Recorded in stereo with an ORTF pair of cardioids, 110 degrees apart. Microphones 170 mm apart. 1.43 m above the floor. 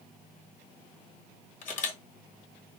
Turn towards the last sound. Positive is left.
turn(degrees=50)